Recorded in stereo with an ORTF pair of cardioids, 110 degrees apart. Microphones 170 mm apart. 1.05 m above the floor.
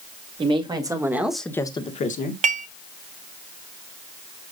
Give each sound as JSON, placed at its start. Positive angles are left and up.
{"t": 0.4, "sound": "a woman speaking", "azimuth_deg": -30, "distance_m": 2.5}
{"t": 2.4, "sound": "dishes clattering", "azimuth_deg": -45, "distance_m": 1.4}